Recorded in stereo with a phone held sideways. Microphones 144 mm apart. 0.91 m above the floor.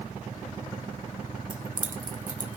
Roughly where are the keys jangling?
Right.